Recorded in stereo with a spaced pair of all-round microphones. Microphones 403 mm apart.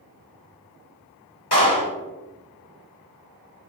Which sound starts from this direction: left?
A clap, at 1.5 s.